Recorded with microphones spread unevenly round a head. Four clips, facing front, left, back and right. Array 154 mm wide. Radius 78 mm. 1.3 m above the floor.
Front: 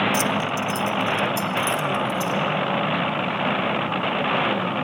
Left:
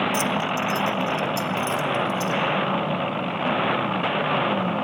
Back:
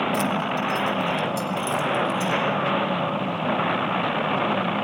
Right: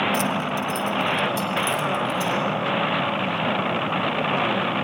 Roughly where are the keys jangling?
Ahead.